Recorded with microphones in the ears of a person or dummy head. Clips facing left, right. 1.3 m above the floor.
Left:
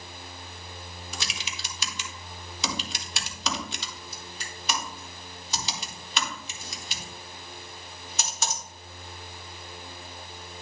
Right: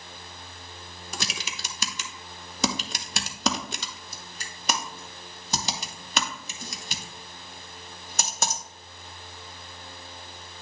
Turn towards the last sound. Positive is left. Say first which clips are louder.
# right 5 dB
turn(degrees=-45)  # may be behind; listen again after turning